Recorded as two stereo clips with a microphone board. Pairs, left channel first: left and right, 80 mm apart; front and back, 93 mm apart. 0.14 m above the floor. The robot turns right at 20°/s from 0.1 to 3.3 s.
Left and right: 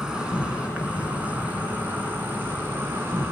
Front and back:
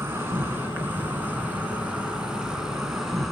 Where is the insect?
155° right, 2.5 m; by 3.3 s 90° right, 2.5 m.